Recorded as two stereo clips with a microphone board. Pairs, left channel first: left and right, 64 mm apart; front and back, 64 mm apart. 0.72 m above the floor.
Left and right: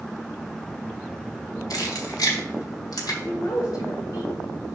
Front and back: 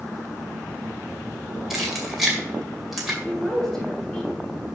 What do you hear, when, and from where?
1.7 s keys jangling: 95° left, 2.0 m
3.2 s a woman speaking: 85° left, 3 m